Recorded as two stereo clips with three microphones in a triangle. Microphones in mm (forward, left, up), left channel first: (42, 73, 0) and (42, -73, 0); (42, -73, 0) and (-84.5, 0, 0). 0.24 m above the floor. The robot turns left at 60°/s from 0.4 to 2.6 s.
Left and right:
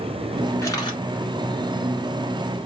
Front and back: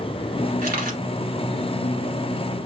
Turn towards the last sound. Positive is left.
turn(degrees=40)